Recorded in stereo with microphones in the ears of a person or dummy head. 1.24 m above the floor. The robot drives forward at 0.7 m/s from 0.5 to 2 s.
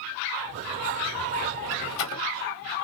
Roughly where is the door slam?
Left.